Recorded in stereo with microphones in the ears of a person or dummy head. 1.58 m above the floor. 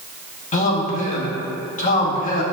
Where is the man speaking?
35° left (ahead or behind), 1.2 m.